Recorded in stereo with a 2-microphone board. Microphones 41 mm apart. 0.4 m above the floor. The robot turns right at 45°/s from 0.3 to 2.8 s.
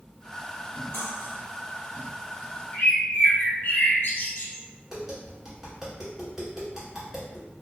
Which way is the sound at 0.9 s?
75° left (ahead or behind).